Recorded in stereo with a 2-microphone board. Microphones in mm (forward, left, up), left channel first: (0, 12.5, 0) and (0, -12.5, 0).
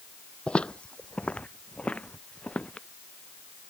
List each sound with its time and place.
0.5 s footsteps: 45° left (ahead or behind); by 2.9 s 50° left (ahead or behind)